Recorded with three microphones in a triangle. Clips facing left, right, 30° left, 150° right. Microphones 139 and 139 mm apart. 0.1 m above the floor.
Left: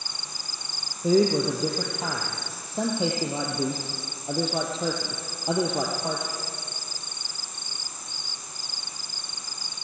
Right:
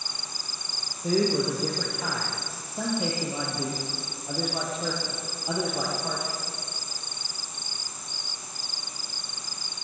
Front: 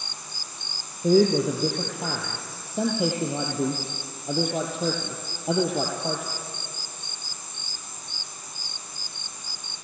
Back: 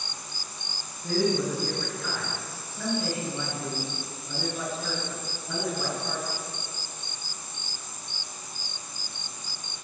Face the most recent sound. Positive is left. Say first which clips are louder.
# left 4 dB, front 7 dB
turn(degrees=25)